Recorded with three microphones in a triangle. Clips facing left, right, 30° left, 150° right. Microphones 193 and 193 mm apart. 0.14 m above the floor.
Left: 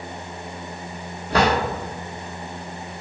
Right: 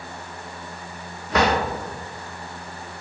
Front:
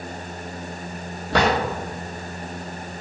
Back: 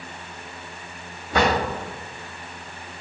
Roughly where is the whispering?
I don't hear whispering.